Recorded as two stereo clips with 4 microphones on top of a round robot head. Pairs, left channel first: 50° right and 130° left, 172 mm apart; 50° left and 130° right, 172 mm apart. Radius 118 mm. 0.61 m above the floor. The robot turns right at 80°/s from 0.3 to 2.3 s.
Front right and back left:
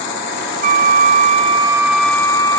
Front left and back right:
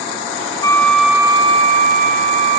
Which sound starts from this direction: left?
A flute, at 0.6 s.